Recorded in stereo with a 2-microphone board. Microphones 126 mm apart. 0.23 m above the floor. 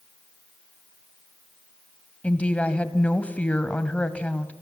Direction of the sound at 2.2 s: 10° left (ahead or behind).